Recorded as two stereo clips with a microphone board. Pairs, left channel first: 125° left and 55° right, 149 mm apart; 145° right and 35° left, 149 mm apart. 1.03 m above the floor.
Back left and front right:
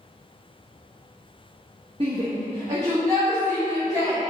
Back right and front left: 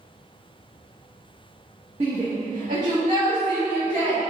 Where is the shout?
5° right, 1.1 m; by 4.2 s 5° left, 3 m.